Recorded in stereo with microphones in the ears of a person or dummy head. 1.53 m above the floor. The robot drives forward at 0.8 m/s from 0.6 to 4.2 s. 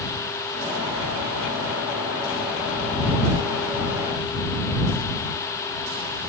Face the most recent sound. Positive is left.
No sound to turn to.